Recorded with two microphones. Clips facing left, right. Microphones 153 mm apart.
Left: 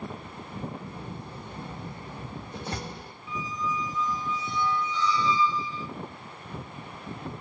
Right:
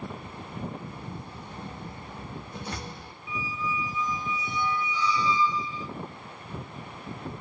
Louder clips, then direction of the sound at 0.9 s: Left 1 dB; 35° left (ahead or behind).